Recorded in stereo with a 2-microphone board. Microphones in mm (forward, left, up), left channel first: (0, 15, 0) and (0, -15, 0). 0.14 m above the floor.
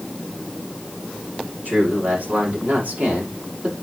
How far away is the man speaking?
About 7 m.